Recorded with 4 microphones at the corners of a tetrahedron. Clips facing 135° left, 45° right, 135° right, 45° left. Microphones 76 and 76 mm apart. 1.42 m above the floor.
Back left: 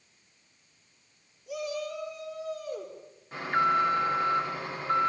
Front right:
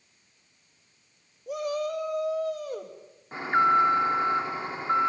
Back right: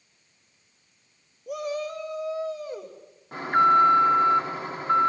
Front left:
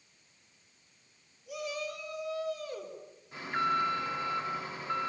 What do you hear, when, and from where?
1.5 s a shout: 95° right, 1.4 m; by 3.0 s 70° right, 2.5 m
3.3 s an alarm: 105° right, 2.5 m